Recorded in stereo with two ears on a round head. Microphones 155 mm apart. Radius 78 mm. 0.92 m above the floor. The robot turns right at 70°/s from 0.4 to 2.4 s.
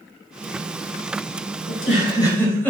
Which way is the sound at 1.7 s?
65° left (ahead or behind).